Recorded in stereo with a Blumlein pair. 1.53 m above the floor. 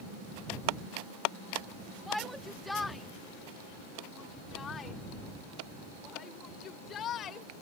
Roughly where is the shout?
Ahead.